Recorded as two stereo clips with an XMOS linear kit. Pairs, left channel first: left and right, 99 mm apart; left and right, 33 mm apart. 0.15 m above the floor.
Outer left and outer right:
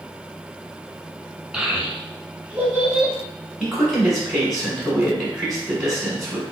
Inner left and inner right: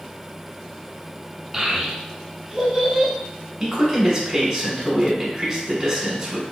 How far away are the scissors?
I don't hear scissors.